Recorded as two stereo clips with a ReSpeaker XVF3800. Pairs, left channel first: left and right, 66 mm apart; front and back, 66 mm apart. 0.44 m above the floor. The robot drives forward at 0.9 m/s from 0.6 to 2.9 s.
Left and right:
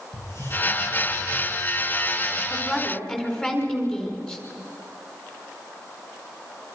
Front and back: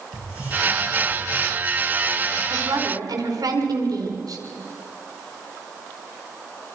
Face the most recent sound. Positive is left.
turn(degrees=165)